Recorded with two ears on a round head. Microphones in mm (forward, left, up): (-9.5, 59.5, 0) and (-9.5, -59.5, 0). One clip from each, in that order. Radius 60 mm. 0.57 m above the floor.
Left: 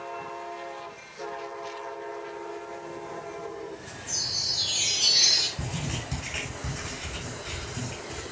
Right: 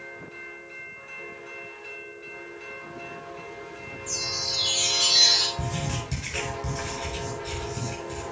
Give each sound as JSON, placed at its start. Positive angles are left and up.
{"t": 4.1, "sound": "a chime", "side_deg": -40, "distance_m": 7.5}
{"t": 5.6, "sound": "writing", "side_deg": -5, "distance_m": 7.0}